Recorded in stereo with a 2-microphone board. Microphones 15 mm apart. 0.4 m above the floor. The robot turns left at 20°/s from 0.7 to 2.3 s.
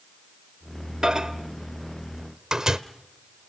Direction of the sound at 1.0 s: 45° right (ahead or behind).